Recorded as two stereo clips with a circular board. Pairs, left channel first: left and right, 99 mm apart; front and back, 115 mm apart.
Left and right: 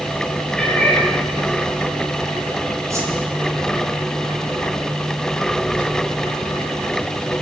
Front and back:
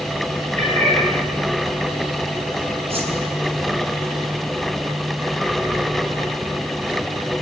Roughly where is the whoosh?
Behind right.